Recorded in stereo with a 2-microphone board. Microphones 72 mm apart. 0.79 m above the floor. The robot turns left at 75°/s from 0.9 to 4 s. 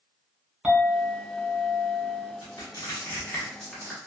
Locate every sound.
0.6 s a clink: 170° right, 1.9 m; by 2.3 s 85° left, 1.9 m
2.4 s crushing: 70° left (ahead or behind), 1.2 m; by 4.1 s 20° right (ahead or behind), 1.2 m